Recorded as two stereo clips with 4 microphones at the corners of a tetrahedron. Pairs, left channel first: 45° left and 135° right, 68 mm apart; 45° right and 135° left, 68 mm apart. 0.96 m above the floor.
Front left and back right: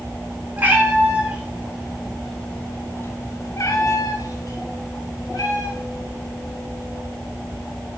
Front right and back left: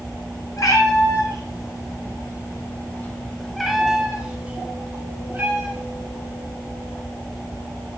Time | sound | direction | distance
0.6 | a cat meowing | 70° right | 2 m